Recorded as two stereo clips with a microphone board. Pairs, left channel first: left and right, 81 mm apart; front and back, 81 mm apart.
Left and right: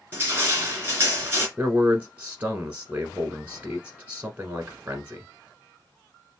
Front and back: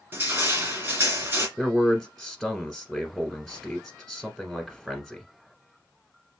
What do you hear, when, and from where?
0.1 s crushing: 135° right, 2 m
1.6 s a man speaking: 95° right, 1.0 m